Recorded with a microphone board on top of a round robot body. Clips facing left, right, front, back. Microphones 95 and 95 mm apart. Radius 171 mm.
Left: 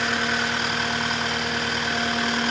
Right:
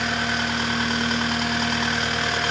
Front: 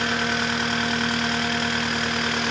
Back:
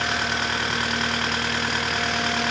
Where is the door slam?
No door slam in this recording.